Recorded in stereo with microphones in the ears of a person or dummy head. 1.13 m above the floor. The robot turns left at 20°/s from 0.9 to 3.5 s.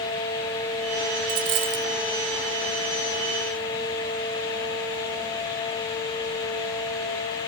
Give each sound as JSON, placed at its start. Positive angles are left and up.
{"t": 1.3, "sound": "a dropped coin", "side_deg": -70}